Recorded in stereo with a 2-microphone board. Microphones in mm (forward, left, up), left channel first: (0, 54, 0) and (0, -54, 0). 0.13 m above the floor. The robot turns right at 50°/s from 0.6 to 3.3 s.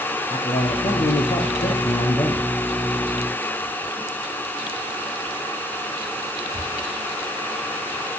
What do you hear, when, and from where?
0.3 s a man speaking: 60° left, 3.5 m; by 2.5 s 155° left, 3.5 m